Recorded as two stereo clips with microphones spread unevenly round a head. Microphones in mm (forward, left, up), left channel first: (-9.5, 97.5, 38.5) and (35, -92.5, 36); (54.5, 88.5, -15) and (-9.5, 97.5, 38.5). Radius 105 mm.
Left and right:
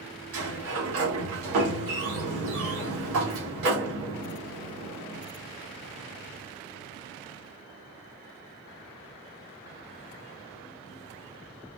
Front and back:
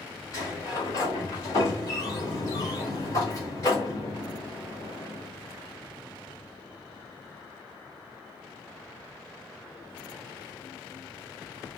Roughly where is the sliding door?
Ahead right.